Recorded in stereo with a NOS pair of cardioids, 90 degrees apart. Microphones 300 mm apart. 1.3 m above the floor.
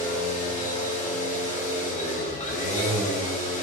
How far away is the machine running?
About 1.3 m.